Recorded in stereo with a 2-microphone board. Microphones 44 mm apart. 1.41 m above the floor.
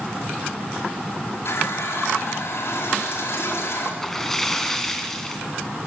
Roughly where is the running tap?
Left.